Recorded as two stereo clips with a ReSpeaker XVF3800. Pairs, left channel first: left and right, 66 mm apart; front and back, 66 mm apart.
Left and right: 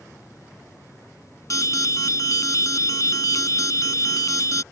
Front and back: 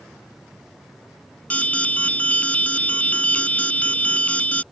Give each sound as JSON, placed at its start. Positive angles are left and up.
{"t": 1.5, "sound": "an alarm", "azimuth_deg": 65}